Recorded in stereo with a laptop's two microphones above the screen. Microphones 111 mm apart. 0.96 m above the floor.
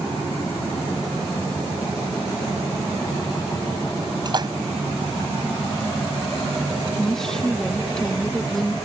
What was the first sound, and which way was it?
A splash, 40° right (ahead or behind).